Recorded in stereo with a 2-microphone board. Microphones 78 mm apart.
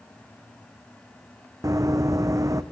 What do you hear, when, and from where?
1.6 s running footsteps: 45° right (ahead or behind), 0.5 m